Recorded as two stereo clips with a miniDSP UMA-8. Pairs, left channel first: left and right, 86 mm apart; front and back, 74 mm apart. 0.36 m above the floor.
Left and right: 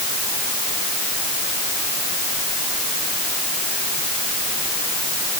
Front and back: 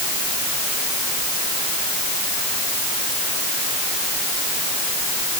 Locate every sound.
Only background noise.